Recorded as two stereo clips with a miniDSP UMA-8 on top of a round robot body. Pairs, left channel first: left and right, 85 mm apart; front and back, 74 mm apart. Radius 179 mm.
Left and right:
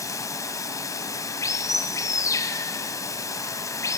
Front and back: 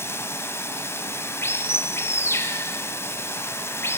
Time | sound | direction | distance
0.0 | running water | 50° left | 1.0 m